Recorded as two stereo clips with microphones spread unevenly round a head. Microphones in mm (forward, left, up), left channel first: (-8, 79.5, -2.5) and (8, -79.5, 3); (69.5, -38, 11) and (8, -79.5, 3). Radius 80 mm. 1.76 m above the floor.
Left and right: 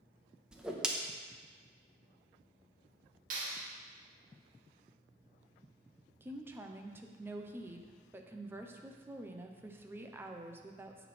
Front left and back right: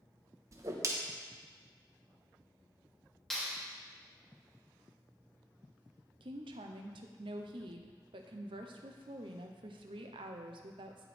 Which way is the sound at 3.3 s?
45° right.